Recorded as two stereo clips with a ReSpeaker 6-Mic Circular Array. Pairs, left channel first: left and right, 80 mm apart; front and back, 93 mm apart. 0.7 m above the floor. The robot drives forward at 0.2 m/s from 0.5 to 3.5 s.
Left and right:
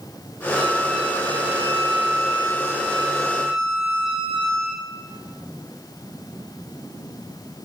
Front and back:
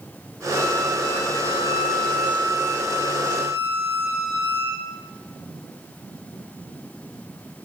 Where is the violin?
175° right, 2.5 m.